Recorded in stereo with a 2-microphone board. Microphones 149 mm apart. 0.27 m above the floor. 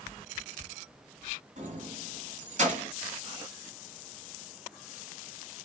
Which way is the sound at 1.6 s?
50° right (ahead or behind).